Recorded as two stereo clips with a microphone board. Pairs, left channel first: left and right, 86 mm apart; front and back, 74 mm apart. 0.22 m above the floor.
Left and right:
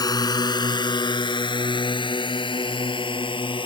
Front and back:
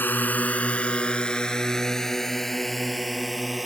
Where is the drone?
60° left; by 3.7 s 95° left.